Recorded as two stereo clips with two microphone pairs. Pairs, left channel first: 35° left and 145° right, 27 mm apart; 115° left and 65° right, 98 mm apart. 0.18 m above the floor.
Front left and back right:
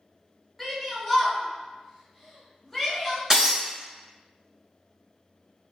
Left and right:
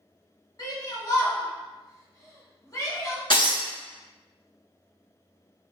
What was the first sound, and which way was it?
A shout, 130° left.